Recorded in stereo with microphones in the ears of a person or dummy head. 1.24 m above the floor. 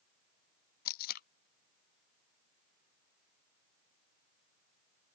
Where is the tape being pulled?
50° left (ahead or behind).